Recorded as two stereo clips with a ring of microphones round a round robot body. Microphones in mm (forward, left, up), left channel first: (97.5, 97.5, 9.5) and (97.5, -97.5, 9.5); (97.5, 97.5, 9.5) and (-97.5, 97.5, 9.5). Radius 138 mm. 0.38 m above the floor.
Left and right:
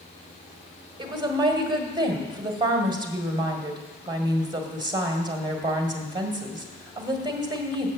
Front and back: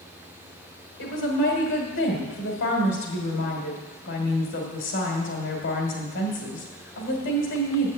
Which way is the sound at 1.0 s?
25° right.